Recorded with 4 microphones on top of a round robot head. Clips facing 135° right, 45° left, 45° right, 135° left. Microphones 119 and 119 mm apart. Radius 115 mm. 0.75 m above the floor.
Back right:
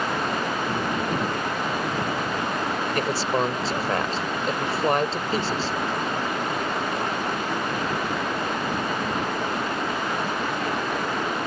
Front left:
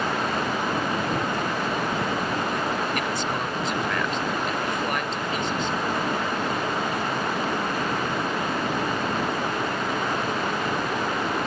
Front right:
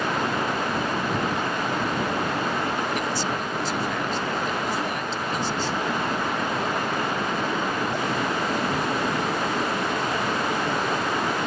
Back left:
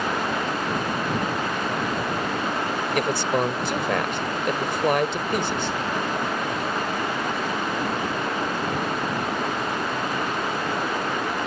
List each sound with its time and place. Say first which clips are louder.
3.0 s a man speaking: back right 3 dB, back left 4 dB; 170° left